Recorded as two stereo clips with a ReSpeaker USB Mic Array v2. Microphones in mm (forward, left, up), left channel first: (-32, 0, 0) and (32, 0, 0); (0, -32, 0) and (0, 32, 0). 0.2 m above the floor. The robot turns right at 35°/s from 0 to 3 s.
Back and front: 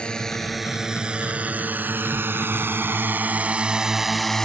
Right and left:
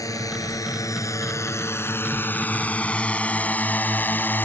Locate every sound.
0.0 s a drone: 105° right